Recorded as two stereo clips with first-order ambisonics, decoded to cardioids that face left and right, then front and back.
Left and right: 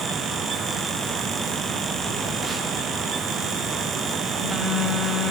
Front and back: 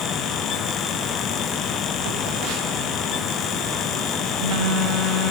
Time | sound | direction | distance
2.0 | a phone buzzing | 165° right | 0.9 m